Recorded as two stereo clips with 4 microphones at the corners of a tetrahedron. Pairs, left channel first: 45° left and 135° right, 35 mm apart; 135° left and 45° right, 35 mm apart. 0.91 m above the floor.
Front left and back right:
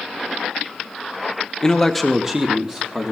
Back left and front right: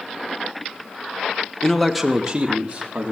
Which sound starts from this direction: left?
A man speaking, at 1.6 s.